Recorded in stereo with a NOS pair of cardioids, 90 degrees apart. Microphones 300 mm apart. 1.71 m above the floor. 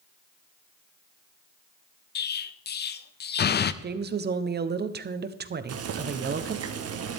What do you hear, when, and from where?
2.1 s an explosion: 35° left, 0.6 m
3.8 s a woman speaking: 35° right, 1.1 m
5.7 s boiling: 55° right, 1.4 m